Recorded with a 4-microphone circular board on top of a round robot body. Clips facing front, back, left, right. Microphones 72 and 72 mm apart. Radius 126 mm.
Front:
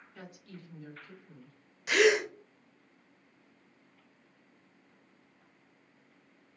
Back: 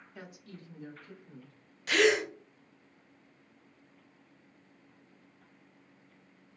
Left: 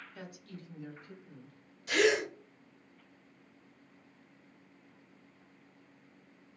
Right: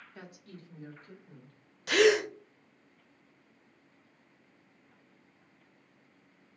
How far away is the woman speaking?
About 1.1 m.